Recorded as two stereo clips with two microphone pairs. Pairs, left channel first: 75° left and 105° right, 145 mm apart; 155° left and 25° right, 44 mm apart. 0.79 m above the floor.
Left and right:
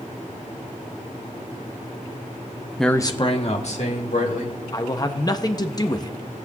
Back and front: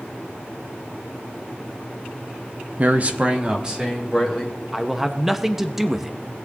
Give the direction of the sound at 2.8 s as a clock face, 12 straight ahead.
1 o'clock.